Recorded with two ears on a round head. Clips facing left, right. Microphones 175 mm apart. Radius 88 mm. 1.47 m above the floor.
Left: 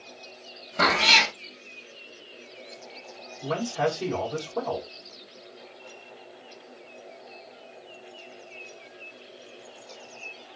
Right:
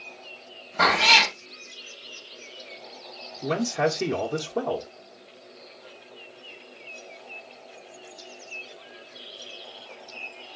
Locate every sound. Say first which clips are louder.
0.8 s a cat meowing: right 2 dB; 35° left (ahead or behind), 1.1 m
3.4 s a man speaking: right 2 dB; 30° right (ahead or behind), 0.9 m